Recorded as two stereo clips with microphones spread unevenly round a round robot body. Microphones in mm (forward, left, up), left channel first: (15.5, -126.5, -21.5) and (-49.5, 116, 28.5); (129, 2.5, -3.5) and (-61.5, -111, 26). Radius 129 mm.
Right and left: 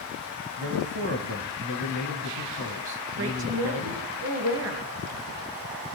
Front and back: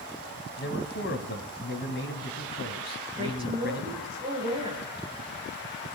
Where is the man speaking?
65° left, 2.5 m.